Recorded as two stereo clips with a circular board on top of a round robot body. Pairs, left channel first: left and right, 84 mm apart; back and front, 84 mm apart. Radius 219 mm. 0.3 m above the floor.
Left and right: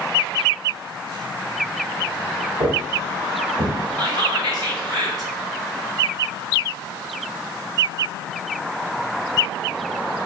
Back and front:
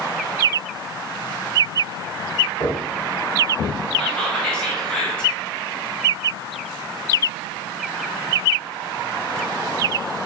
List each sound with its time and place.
2.6 s footsteps: 115° right, 0.9 m; by 3.8 s 70° right, 1.5 m
4.0 s whispering: 105° right, 1.4 m